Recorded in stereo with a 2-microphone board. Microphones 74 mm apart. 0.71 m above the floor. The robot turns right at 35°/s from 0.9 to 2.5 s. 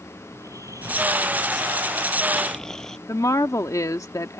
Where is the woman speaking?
50° left (ahead or behind).